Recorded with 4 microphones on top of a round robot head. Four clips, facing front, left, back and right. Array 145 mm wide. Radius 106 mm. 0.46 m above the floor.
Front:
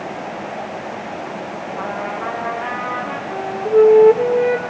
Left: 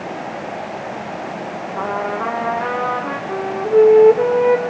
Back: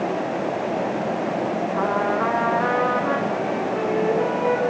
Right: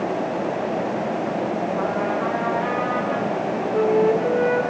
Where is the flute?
70° left, 7 m.